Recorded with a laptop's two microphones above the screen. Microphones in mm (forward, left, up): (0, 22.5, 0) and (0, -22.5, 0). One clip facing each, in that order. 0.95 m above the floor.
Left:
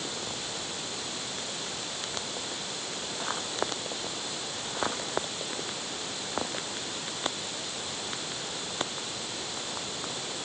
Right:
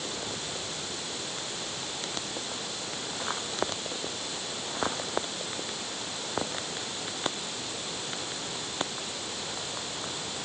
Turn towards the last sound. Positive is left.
No sound to turn to.